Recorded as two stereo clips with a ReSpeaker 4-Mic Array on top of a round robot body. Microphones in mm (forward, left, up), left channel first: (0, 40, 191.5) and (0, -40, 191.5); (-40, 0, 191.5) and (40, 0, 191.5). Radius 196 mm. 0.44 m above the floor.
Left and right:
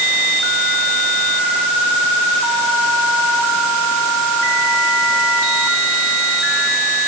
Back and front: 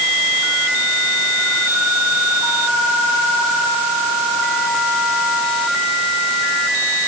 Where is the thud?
No thud in this recording.